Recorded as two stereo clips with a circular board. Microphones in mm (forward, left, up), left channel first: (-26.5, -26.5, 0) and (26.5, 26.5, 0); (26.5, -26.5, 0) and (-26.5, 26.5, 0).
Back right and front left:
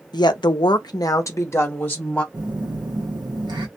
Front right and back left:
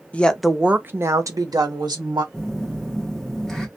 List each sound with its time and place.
0.1 s a woman speaking: 115° right, 0.5 m; by 2.2 s 155° left, 1.0 m
2.3 s a phone buzzing: 40° left, 0.9 m